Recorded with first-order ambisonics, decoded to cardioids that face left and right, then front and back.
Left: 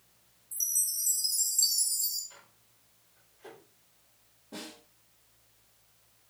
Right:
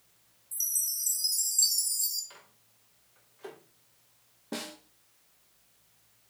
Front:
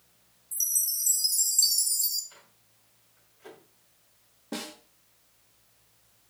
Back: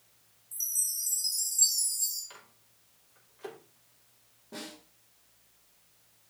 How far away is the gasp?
I don't hear a gasp.